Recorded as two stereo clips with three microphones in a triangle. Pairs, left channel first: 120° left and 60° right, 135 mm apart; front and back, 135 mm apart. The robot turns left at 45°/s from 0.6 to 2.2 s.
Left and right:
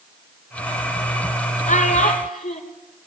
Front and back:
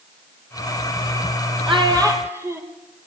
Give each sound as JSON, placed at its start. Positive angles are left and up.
{"t": 1.7, "sound": "a child speaking", "azimuth_deg": 135, "distance_m": 2.5}